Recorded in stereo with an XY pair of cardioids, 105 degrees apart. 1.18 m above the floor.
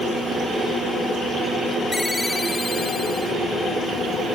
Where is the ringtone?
20° left.